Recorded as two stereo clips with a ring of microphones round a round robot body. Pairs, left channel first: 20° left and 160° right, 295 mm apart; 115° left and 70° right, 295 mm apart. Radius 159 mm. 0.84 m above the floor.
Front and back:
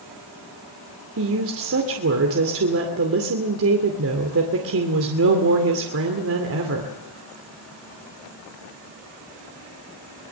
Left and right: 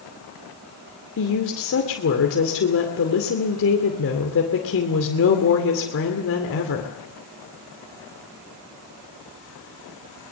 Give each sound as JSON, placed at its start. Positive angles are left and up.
{"t": 1.2, "sound": "a woman speaking", "azimuth_deg": 160, "distance_m": 2.5}